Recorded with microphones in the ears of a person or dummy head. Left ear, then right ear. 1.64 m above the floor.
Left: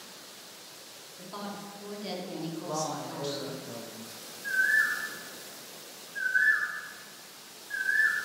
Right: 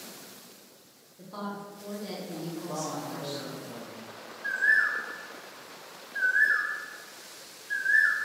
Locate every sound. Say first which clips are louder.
1.2 s a woman speaking: right 2 dB; 15° left (ahead or behind), 0.9 m
2.6 s a man speaking: left 2 dB; 70° left (ahead or behind), 0.6 m
4.4 s a bird: right 1 dB; 20° right (ahead or behind), 0.5 m